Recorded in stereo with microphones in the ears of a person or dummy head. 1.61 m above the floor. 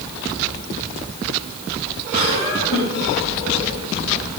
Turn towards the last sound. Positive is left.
turn(degrees=80)